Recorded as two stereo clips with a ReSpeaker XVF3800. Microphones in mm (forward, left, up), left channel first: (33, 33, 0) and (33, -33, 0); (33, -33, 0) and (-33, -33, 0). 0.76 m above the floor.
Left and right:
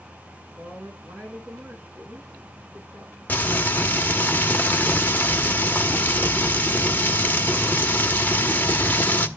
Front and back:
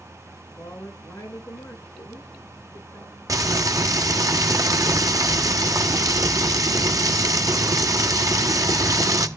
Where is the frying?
150° left, 1.2 m.